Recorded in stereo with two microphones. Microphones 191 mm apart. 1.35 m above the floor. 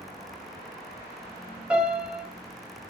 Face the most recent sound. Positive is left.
turn(degrees=-5)  # may be behind; listen again after turning